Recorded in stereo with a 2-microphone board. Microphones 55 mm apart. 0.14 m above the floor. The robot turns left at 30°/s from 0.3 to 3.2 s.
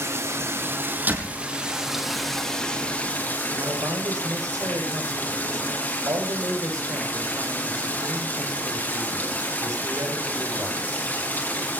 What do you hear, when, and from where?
0.0 s running water: 125° right, 4.5 m; by 11.8 s 145° left, 4.5 m
1.1 s a door slam: 35° right (ahead or behind), 4.5 m; by 1.4 s 25° right (ahead or behind), 4.5 m
3.5 s a man speaking: 75° right (ahead or behind), 7.5 m